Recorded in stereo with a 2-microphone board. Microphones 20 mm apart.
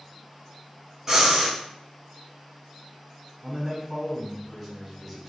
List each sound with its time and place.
1.1 s breathing: 15° right (ahead or behind), 1.2 m
3.4 s a man speaking: centre (ahead or behind), 1.4 m